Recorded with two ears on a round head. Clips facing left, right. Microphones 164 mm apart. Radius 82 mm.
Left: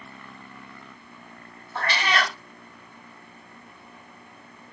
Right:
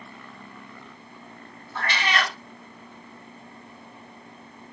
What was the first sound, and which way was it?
A cat meowing, 30° left (ahead or behind).